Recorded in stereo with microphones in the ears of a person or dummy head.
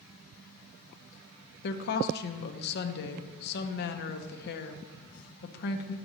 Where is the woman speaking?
50° left (ahead or behind), 0.6 m.